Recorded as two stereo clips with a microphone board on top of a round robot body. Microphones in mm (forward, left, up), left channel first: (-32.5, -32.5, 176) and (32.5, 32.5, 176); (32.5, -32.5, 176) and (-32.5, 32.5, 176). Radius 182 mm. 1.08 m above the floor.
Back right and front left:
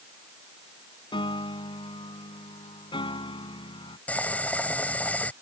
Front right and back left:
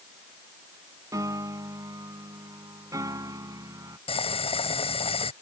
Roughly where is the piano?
Behind.